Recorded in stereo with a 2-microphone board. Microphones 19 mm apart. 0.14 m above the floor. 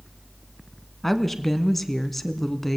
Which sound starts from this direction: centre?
A woman speaking, at 1.0 s.